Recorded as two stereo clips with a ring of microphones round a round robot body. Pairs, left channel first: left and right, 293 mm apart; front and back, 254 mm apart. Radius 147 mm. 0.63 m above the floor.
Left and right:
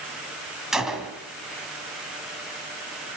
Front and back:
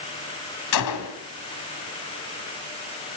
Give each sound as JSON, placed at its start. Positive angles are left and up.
{"t": 0.7, "sound": "a gunshot", "azimuth_deg": 0, "distance_m": 2.5}